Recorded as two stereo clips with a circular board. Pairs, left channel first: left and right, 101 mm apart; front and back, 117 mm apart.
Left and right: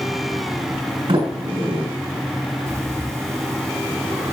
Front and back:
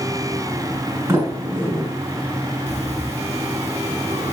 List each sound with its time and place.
1.1 s a sliding door: 110° right, 6 m
2.7 s breathing: 150° right, 3 m